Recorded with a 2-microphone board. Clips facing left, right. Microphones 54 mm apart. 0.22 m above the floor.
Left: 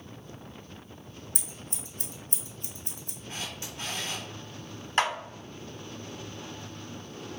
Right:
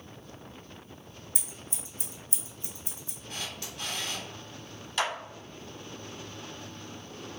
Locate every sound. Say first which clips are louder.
1.4 s scissors: even; 65° left (ahead or behind), 0.7 m
3.3 s a camera shutter: left 1 dB; 30° left (ahead or behind), 1.0 m
5.0 s a clap: left 4 dB; 45° left (ahead or behind), 1.0 m